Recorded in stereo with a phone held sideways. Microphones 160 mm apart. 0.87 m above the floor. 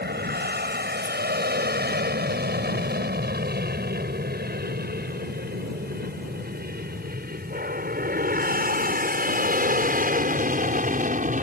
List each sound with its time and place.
0.0 s an aircraft: 75° right (ahead or behind); by 11.4 s 50° right (ahead or behind)
1.0 s a rattle: 25° left (ahead or behind)